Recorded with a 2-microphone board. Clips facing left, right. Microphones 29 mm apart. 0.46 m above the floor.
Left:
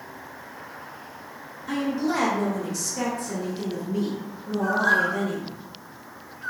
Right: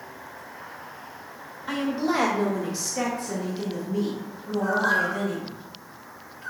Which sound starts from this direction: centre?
A bird, at 4.6 s.